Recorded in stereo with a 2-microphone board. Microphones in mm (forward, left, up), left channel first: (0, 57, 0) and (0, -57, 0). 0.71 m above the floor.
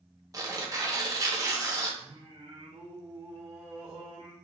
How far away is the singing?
About 1.6 m.